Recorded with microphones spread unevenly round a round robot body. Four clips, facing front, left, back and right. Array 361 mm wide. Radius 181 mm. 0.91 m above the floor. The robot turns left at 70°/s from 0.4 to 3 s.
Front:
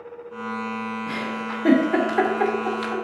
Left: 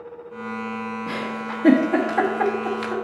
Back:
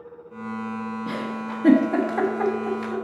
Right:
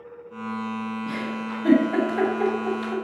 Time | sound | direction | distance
1.1 | a giggle | straight behind | 1.6 m